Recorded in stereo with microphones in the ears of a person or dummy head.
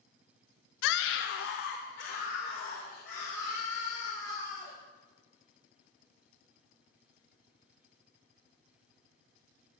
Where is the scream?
60° left (ahead or behind), 0.6 m; by 4.8 s 45° left (ahead or behind), 5 m.